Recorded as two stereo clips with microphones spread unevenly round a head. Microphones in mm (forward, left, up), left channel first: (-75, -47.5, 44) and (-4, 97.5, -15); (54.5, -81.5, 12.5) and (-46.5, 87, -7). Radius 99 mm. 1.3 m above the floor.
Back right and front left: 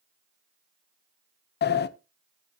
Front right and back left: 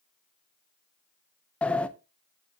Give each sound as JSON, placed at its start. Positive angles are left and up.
{"t": 1.6, "sound": "a sliding door", "azimuth_deg": -145, "distance_m": 0.6}